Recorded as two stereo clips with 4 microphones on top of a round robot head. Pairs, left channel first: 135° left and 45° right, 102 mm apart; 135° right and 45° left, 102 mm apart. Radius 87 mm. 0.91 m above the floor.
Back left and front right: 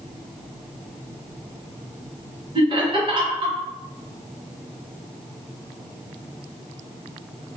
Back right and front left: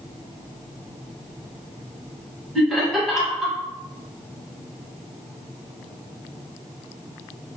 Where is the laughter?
40° right, 1.2 m.